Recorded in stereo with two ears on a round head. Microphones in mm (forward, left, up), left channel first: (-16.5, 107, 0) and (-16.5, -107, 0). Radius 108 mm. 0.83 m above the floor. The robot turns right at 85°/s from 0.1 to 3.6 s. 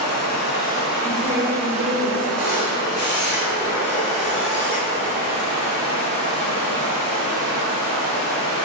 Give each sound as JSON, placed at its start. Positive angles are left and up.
{"t": 0.0, "sound": "running water", "azimuth_deg": 90, "distance_m": 1.0}
{"t": 1.0, "sound": "a woman speaking", "azimuth_deg": -170, "distance_m": 1.0}
{"t": 2.4, "sound": "a camera shutter", "azimuth_deg": 5, "distance_m": 1.8}